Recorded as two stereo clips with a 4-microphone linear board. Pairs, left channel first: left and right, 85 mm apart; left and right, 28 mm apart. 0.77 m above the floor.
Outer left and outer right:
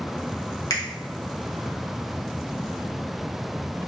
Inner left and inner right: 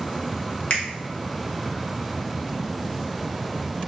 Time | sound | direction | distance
0.7 | a finger snap | 45° left (ahead or behind) | 0.7 m